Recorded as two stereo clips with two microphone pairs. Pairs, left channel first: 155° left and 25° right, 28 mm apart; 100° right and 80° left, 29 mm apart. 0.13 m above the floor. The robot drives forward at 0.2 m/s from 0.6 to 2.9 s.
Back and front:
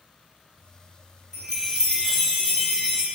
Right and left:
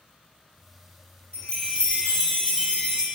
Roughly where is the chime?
Behind right.